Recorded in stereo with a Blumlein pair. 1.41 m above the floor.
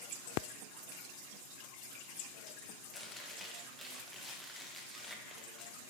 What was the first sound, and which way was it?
Chewing, straight ahead.